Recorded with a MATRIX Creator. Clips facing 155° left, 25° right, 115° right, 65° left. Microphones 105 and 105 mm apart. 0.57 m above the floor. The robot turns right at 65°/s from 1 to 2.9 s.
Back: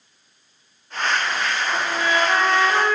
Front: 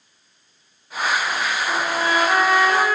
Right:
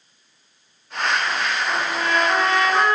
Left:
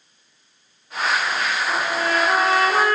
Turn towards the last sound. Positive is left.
turn(degrees=90)